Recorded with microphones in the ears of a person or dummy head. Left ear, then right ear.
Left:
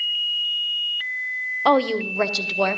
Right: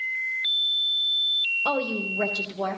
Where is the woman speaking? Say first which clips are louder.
Left 7 dB; 40° left (ahead or behind), 0.6 m; by 2.8 s 70° left (ahead or behind), 1.1 m.